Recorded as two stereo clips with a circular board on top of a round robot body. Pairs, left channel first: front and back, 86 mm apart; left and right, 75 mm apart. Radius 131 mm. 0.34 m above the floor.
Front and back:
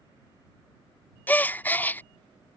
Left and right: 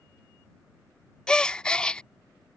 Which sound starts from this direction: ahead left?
A gasp, at 1.3 s.